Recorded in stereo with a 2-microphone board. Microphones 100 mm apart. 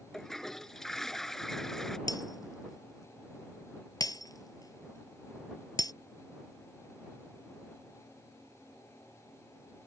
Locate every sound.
0.1 s a toilet flushing: 5° left (ahead or behind)
2.1 s breaking glass: 40° left (ahead or behind)